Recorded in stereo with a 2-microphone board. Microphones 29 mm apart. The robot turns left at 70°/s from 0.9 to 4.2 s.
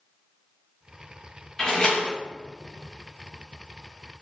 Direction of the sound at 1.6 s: 160° left.